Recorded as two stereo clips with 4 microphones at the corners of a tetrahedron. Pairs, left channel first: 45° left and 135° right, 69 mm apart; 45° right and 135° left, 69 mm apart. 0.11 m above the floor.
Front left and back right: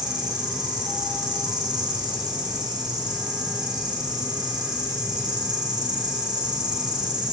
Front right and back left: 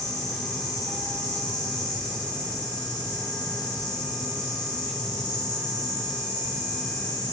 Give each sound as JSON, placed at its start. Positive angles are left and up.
{"t": 0.0, "sound": "an insect", "azimuth_deg": -120, "distance_m": 5.5}